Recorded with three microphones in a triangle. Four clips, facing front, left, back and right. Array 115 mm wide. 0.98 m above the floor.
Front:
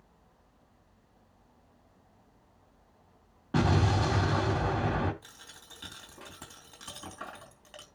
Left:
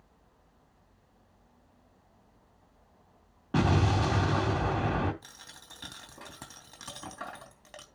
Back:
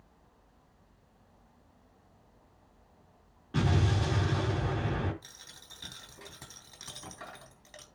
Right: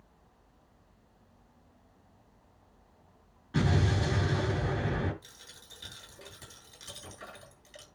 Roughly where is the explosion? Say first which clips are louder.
Left 3 dB, front 3 dB; ahead left.